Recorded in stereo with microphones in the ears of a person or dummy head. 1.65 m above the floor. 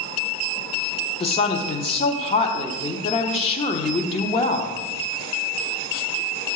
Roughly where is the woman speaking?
Left.